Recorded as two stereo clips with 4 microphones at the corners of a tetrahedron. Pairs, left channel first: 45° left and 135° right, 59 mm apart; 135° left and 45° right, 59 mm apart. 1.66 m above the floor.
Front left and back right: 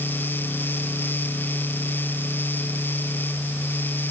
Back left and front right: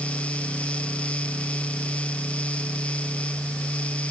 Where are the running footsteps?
I don't hear running footsteps.